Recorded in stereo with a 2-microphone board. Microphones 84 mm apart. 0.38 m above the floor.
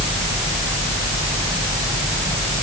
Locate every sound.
Only background noise.